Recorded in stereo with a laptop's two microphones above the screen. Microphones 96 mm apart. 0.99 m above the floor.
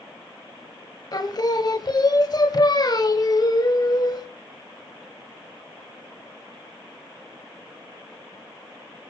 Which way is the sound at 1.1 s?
45° left (ahead or behind).